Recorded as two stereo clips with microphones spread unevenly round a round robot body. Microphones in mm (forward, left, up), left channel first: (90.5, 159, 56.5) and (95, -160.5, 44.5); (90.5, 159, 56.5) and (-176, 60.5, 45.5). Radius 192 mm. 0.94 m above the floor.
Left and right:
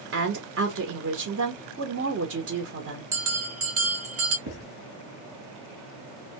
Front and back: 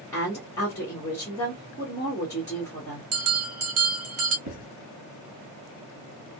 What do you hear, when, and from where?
0.1 s a woman speaking: 60° right, 1.1 m
3.1 s a bell: 135° right, 0.7 m
4.5 s writing: 125° right, 2.5 m